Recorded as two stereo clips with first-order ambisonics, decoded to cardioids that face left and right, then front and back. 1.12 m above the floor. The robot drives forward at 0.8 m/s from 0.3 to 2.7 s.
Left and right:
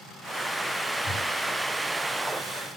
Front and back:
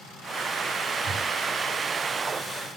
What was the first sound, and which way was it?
A whoosh, 135° left.